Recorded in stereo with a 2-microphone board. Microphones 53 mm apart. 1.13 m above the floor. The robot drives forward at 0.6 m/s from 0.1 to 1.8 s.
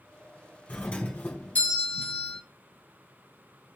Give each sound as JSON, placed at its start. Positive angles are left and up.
{"t": 0.7, "sound": "a doorbell", "side_deg": 20, "distance_m": 2.5}